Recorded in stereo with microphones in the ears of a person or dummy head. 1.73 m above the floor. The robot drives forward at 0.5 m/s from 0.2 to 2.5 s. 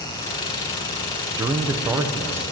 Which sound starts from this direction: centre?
A man speaking, at 1.3 s.